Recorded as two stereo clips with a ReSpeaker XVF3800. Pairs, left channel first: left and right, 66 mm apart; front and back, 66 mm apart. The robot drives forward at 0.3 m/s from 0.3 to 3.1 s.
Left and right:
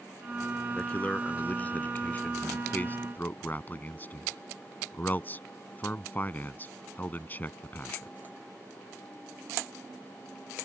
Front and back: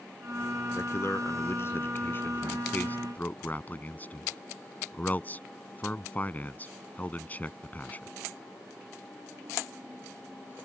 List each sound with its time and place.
0.8 s a man speaking: 25° left; by 8.1 s 45° left